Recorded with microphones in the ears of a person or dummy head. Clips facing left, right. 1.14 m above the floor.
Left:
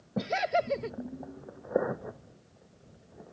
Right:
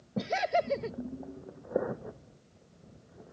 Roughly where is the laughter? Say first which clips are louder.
Even; centre.